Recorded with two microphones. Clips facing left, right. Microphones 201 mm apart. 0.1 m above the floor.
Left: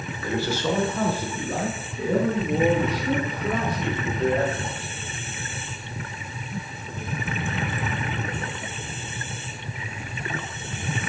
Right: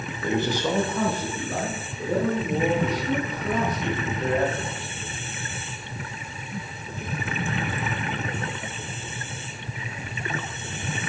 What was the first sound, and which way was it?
A man speaking, 25° right (ahead or behind).